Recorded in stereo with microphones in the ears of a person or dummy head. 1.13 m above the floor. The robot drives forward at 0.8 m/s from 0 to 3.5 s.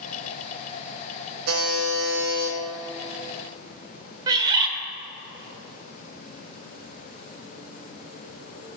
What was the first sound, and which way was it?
A buzzer, 75° right (ahead or behind).